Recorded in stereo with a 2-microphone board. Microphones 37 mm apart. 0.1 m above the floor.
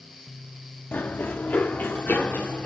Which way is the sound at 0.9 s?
65° left (ahead or behind).